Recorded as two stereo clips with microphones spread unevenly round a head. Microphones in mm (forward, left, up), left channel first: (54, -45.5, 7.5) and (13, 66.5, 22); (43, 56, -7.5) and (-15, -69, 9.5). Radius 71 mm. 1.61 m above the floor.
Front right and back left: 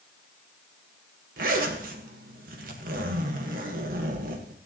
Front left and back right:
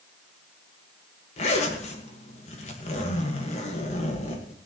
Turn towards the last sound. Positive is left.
turn(degrees=115)